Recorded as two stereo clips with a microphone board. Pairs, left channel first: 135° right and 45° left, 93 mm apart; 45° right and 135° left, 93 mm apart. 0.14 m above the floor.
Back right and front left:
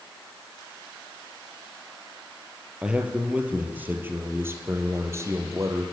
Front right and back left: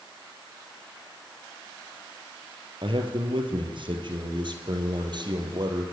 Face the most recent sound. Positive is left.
turn(degrees=100)